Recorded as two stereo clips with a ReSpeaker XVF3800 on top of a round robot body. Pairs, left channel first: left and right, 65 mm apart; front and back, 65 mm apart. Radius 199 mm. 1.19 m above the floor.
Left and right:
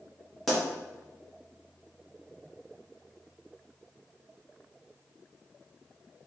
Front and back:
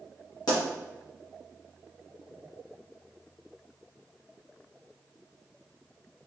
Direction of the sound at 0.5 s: Straight ahead.